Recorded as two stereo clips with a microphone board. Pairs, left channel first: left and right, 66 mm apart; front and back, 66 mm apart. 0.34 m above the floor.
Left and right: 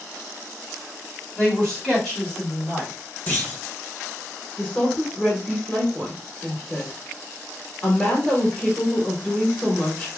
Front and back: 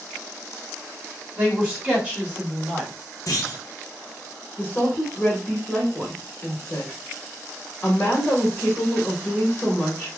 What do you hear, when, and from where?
1.4 s a man speaking: 155° left, 1.3 m
3.3 s a clunk: 30° left, 1.2 m
4.6 s a woman speaking: 30° left, 1.1 m